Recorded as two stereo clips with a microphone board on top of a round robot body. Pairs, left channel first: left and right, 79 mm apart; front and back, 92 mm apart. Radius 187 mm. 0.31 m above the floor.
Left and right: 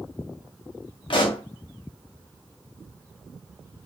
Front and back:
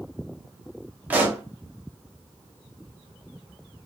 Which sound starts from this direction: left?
A pop, at 1.1 s.